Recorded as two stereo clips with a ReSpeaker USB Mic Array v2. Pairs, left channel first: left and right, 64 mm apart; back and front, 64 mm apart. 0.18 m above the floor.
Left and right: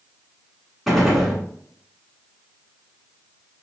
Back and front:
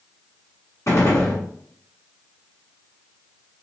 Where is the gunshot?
Straight behind, 1.3 m.